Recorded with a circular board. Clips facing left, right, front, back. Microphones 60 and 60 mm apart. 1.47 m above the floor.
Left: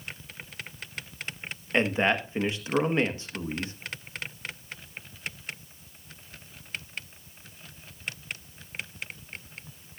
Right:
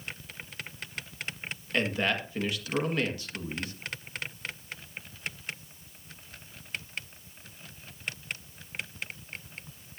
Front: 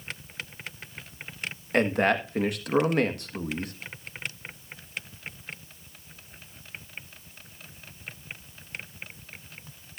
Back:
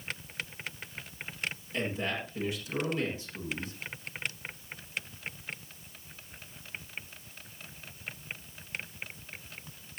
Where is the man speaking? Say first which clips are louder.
Left 4 dB, front 11 dB; 25° left, 1.6 m.